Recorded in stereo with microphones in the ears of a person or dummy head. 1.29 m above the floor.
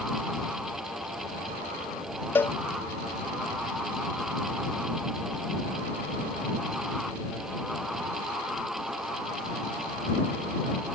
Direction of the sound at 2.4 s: 10° left (ahead or behind).